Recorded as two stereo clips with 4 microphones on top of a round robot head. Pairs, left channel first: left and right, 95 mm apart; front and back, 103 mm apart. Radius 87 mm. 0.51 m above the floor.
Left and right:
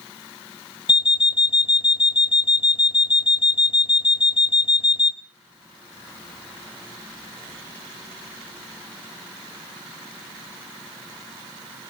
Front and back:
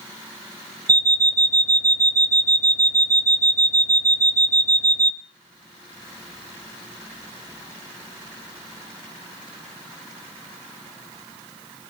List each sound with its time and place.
0.9 s an alarm clock: 130° left, 1.0 m